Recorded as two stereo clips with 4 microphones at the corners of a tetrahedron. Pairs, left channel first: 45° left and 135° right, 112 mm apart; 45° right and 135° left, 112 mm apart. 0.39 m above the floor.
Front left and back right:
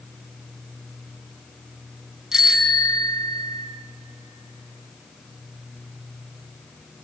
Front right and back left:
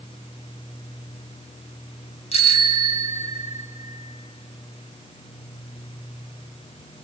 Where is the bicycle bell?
50° right, 2.5 m.